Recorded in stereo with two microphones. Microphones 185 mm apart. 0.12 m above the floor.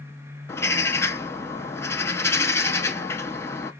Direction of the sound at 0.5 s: 15° left (ahead or behind).